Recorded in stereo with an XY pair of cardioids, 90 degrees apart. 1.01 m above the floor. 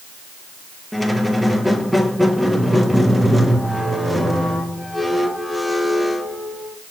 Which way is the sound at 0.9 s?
5° right.